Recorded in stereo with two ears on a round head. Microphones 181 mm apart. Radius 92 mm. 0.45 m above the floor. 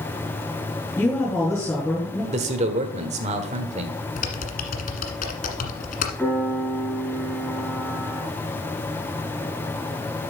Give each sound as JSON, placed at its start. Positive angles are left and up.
{"t": 1.0, "sound": "a woman speaking", "side_deg": 10, "distance_m": 5.5}
{"t": 2.3, "sound": "a man speaking", "side_deg": -35, "distance_m": 1.5}
{"t": 4.2, "sound": "typing on a keyboard", "side_deg": 40, "distance_m": 1.5}
{"t": 6.2, "sound": "a piano", "side_deg": 5, "distance_m": 4.5}